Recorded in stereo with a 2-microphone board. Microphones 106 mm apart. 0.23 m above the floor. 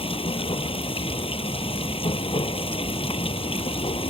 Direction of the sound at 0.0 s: 65° left (ahead or behind).